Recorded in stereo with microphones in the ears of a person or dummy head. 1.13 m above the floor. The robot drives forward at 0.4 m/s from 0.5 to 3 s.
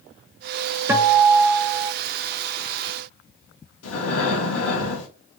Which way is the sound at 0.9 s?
15° right (ahead or behind).